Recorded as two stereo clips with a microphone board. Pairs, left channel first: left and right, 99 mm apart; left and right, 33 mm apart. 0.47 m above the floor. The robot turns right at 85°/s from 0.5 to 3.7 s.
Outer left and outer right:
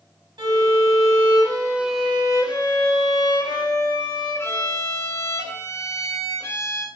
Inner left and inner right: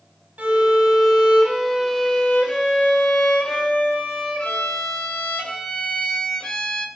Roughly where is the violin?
Behind right.